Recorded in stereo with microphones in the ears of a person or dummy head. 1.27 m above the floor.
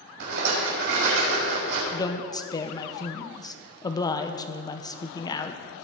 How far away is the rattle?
About 5 m.